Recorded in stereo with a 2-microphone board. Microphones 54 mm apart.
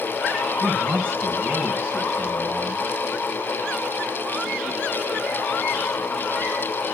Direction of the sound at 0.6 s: 35° right (ahead or behind).